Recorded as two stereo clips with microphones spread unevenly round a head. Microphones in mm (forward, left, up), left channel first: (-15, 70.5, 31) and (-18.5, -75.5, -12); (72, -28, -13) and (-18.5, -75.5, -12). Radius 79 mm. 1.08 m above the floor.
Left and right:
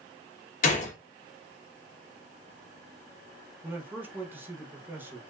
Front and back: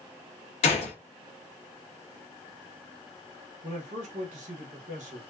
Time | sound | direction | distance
0.6 | a gunshot | 45° left | 0.7 m
3.6 | a man speaking | 165° right | 0.8 m